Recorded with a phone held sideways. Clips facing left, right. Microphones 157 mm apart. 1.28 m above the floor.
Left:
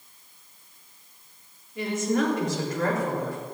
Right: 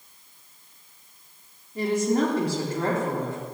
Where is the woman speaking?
40° right (ahead or behind), 4 m; by 3.4 s 25° right (ahead or behind), 4 m.